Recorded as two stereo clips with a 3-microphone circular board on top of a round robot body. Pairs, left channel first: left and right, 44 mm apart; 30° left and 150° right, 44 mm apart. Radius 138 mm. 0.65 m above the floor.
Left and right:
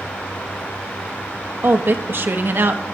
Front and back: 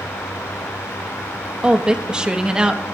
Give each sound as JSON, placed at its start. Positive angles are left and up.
{"t": 1.6, "sound": "a woman speaking", "azimuth_deg": -80, "distance_m": 1.5}